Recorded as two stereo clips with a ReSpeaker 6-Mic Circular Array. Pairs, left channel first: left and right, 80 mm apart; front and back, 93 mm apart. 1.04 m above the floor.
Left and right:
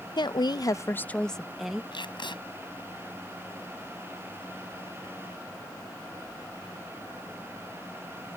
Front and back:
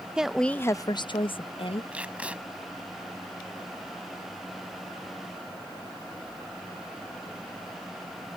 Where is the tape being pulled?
105° left.